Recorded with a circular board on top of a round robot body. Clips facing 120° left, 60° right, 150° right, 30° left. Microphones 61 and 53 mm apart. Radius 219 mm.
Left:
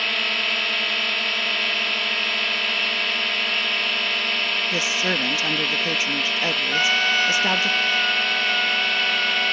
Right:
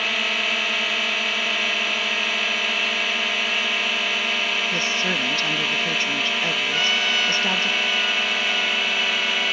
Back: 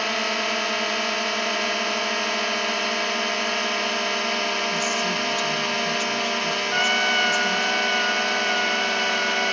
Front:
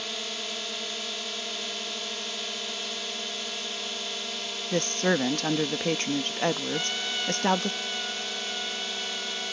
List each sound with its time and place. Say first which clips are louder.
0.0 s a drone: right 1 dB, back 12 dB; 145° right
4.7 s a woman speaking: even, back 1 dB; 45° left
6.7 s a trumpet: left 4 dB, back 10 dB; straight behind